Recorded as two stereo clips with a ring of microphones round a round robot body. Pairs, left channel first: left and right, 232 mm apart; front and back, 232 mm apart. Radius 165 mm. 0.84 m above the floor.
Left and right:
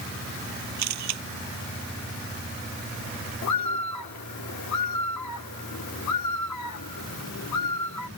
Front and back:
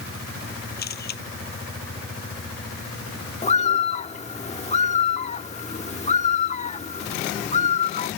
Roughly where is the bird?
Ahead left.